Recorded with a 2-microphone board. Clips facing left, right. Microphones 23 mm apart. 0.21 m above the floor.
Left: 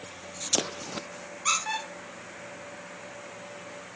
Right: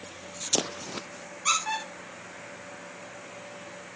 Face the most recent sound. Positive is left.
turn(degrees=5)  # may be behind; listen again after turning